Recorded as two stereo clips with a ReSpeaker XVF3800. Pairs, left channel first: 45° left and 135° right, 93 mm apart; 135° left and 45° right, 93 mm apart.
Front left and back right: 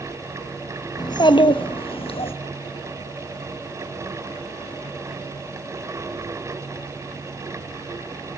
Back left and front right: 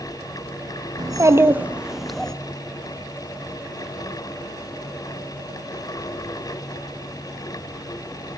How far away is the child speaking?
About 0.7 m.